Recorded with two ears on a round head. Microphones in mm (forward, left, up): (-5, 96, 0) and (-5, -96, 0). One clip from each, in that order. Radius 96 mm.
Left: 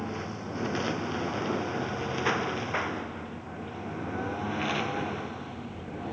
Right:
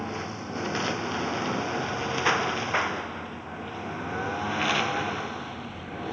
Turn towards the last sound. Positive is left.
turn(degrees=-45)  # may be behind; listen again after turning